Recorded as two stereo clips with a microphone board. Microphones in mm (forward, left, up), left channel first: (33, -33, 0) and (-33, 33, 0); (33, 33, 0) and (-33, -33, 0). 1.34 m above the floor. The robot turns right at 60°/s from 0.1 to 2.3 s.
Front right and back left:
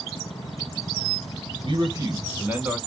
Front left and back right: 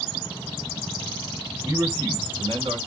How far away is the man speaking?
About 1.5 m.